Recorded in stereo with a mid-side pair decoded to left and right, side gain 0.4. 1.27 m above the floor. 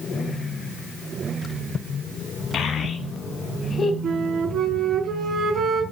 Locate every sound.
2.5 s a child speaking: 65° left, 5 m; by 3.9 s 45° left, 5 m
4.0 s a flute: 70° right, 7 m